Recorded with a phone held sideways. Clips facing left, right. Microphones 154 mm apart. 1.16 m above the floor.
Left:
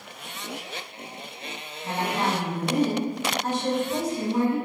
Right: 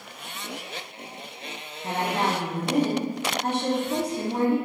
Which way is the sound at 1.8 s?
60° right (ahead or behind).